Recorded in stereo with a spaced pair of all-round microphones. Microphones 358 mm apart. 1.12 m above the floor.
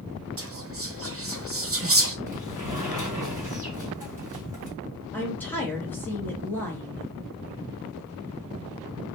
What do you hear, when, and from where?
0.4 s whispering: 40° right (ahead or behind), 0.9 m
2.3 s a sliding door: 10° right (ahead or behind), 2.5 m
5.1 s a woman speaking: 5° left (ahead or behind), 1.9 m